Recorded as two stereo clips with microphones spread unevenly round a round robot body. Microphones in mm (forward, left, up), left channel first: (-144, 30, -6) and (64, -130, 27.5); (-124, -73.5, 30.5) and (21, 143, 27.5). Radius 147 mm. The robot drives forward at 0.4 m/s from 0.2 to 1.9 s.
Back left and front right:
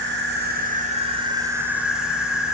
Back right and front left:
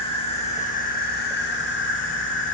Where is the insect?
65° right, 0.9 m; by 2.5 s 130° right, 1.0 m.